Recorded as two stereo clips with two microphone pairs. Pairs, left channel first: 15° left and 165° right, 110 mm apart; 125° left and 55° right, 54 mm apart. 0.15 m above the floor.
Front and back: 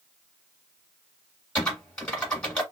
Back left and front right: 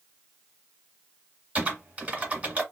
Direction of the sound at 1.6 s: 55° right.